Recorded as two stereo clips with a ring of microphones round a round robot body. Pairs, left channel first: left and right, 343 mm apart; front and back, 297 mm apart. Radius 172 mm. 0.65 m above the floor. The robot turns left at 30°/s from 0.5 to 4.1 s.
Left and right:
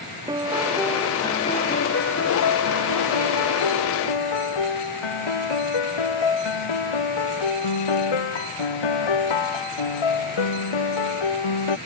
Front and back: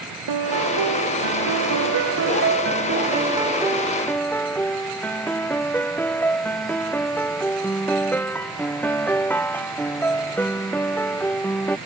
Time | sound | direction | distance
0.3 | a piano | 170° right | ?